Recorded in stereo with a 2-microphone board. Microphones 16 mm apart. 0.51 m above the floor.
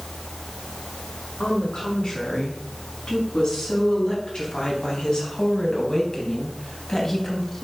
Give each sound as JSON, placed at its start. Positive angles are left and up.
{"t": 1.4, "sound": "a woman speaking", "side_deg": 80, "distance_m": 5.0}